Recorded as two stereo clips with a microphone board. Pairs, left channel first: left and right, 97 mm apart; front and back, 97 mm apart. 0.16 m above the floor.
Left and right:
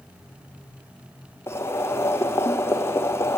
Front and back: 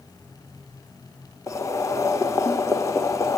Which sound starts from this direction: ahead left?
Boiling, at 1.5 s.